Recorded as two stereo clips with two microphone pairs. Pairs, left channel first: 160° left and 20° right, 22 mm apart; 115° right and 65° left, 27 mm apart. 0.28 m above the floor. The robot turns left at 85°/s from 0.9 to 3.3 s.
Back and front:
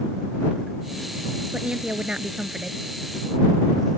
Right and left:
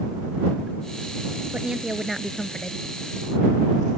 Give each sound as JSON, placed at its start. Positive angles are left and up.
{"t": 1.5, "sound": "a woman speaking", "azimuth_deg": 25}